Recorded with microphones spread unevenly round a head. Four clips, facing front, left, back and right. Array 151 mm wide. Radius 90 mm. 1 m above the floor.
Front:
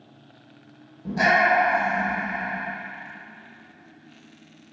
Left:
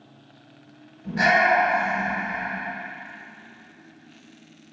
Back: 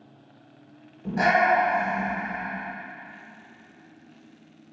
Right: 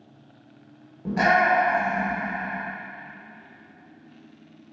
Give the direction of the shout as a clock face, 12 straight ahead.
4 o'clock.